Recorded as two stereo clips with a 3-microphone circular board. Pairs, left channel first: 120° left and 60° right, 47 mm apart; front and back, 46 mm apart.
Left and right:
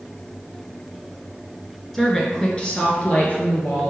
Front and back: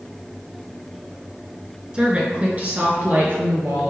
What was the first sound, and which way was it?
A woman speaking, 170° right.